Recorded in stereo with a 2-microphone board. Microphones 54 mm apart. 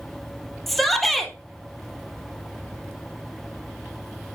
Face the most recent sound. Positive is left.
turn(degrees=0)  # may be behind; listen again after turning